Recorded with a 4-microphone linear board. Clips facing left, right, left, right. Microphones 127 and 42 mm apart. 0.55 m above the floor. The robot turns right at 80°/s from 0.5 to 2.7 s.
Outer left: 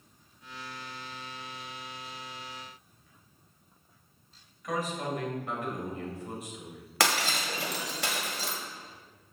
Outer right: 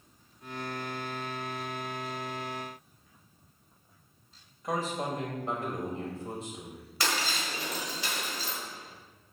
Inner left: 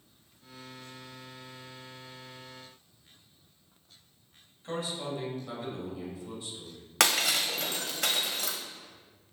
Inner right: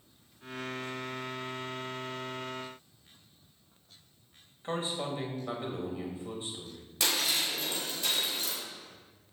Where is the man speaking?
30° right (ahead or behind), 2.5 m.